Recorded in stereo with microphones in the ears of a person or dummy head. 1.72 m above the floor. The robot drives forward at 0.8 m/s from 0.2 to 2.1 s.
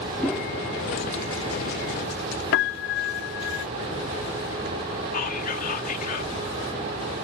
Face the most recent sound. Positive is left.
turn(degrees=45)  # may be behind; listen again after turning